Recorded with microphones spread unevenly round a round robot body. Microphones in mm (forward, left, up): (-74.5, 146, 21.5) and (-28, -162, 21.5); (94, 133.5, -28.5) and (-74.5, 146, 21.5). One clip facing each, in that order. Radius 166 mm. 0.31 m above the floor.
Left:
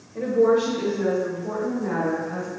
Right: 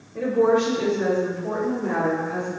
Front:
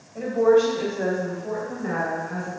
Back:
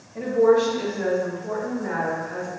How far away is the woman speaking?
About 1.0 m.